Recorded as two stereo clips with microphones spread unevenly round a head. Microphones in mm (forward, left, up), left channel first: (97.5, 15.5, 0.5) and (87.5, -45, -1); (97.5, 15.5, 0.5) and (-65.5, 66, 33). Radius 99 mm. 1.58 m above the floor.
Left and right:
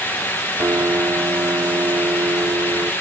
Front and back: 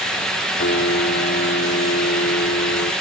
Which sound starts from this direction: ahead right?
A piano, at 0.6 s.